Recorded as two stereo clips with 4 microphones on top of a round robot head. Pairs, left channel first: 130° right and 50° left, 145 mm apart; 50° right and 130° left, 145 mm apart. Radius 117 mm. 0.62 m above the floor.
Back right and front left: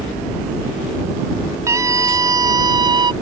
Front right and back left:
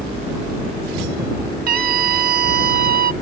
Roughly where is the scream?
Behind left.